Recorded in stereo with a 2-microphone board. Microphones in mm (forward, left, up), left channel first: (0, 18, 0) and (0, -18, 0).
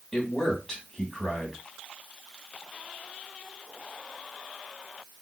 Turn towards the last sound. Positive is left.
turn(degrees=15)  # may be behind; listen again after turning